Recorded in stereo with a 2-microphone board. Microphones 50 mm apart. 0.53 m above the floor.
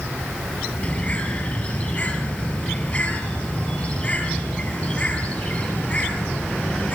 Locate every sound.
0.8 s a bird: 35° left (ahead or behind), 5 m